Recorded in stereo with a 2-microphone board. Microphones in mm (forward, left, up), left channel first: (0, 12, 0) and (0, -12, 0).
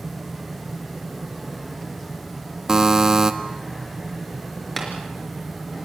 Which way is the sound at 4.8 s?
10° left (ahead or behind).